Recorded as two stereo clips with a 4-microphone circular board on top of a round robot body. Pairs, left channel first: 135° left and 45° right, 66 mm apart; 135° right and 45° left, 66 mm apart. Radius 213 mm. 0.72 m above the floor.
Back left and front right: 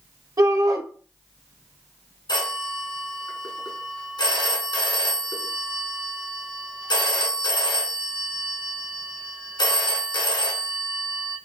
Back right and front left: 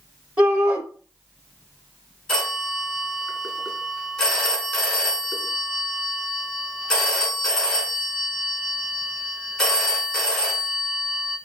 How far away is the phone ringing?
About 2 m.